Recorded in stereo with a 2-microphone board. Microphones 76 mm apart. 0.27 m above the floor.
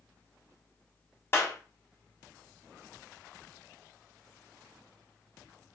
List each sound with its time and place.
1.3 s a clap: 30° left (ahead or behind), 1.7 m